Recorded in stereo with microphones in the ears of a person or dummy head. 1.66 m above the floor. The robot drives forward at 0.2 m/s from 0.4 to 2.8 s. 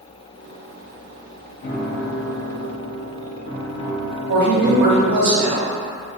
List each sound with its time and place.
1.6 s a piano: 40° left (ahead or behind), 0.6 m; by 5.2 s 25° left (ahead or behind), 0.8 m
4.3 s a woman speaking: 50° right (ahead or behind), 0.7 m